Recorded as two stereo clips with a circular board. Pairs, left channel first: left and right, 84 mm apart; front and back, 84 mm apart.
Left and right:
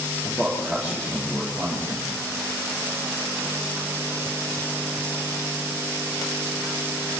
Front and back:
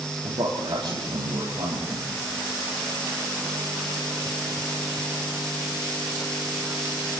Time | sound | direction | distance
0.2 | a man speaking | 175° left | 9.5 m